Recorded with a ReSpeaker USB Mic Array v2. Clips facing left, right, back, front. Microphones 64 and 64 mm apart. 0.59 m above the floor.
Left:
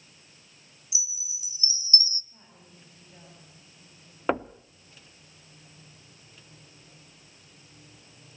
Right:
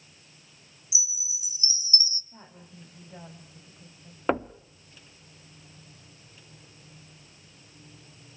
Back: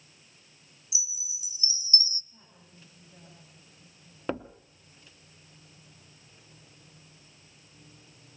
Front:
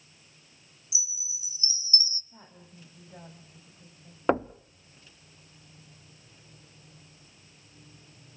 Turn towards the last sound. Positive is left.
turn(degrees=0)